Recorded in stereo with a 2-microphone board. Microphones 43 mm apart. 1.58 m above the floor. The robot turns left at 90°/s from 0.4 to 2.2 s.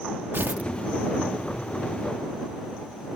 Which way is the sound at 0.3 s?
60° right (ahead or behind).